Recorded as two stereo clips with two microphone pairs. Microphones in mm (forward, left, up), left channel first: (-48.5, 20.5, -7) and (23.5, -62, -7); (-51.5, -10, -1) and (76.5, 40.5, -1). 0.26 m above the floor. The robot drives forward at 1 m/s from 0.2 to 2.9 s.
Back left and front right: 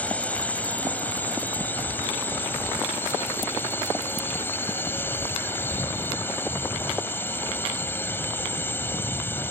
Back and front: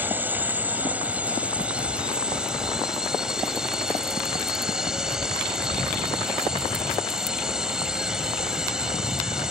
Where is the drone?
75° left; by 9.5 s 100° left.